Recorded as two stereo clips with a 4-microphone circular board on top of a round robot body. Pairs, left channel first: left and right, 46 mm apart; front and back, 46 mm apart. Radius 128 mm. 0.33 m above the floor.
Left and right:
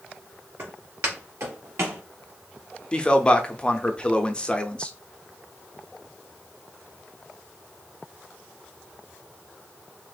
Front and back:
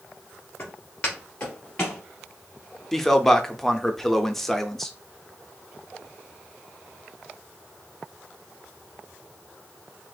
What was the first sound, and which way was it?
Footsteps, 60° right.